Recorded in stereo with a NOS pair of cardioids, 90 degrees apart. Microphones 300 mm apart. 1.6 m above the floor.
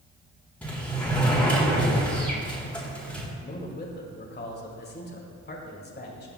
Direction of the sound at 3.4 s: 35° left.